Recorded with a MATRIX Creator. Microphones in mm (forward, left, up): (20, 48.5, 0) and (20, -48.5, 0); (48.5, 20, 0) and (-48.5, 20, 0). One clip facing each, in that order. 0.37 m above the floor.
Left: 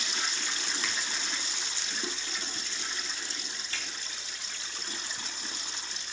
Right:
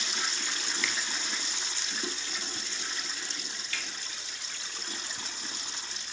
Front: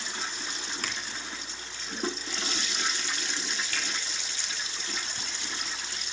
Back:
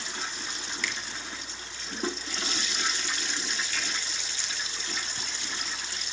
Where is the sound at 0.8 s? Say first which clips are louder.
Right 2 dB, back 3 dB; 40° left, 2 m.